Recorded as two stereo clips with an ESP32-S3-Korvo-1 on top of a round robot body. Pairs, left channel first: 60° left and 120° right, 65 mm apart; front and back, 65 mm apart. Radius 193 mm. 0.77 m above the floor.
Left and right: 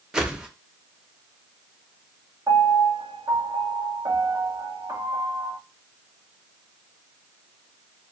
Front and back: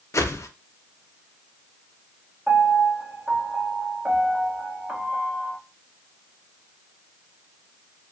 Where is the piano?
105° right, 1.1 m.